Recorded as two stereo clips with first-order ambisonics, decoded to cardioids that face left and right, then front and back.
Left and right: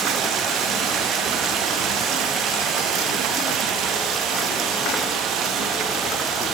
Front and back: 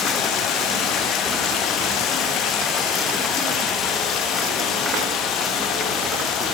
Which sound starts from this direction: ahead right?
Running water, at 0.0 s.